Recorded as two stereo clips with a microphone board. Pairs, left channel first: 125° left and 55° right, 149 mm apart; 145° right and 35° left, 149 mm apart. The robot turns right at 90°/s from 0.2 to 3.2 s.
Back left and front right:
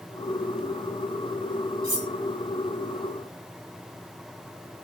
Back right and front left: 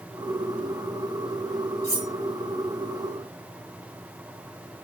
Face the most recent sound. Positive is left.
turn(degrees=-160)